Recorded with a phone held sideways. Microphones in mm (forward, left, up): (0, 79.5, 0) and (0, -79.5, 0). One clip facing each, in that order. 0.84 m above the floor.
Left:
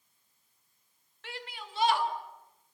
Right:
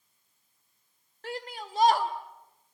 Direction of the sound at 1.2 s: 45° right (ahead or behind).